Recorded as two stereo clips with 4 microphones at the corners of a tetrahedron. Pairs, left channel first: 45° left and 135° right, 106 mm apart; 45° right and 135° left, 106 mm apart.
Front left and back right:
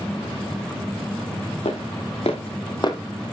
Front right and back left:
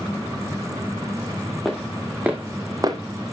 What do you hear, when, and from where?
1.6 s footsteps: 45° left, 2.5 m; by 3.0 s 95° left, 1.3 m